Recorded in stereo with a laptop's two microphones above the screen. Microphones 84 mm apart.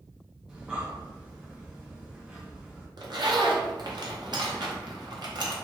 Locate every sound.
0.5 s breathing: 10° right (ahead or behind), 0.6 m
3.0 s a zipper: 65° right (ahead or behind), 0.6 m